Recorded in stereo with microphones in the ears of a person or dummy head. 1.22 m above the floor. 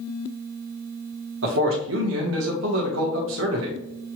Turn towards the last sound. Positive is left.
turn(degrees=-65)  # may be behind; listen again after turning